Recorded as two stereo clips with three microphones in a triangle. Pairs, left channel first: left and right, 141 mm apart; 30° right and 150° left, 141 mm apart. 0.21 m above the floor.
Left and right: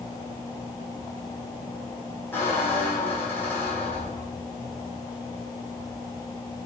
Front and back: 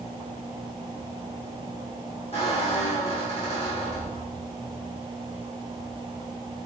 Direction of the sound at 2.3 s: 15° left.